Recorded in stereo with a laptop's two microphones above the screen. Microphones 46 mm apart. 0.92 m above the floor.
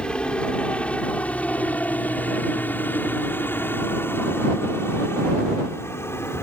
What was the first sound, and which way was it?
A helicopter, 20° left (ahead or behind).